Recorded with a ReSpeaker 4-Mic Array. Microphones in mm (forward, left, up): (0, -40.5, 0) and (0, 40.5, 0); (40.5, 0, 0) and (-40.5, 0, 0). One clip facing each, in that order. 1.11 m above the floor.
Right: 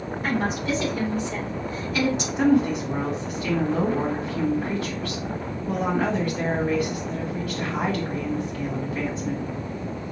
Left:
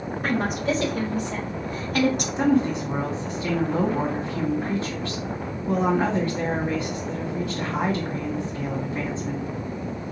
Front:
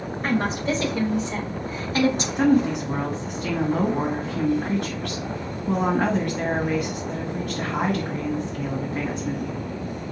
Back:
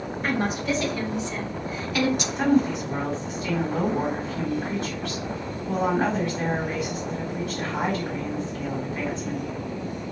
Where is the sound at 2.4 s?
30° left, 2 m.